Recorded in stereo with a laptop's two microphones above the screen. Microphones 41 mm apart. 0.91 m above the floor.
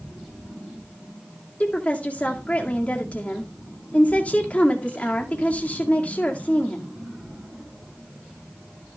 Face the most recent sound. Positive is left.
turn(degrees=35)  # may be behind; listen again after turning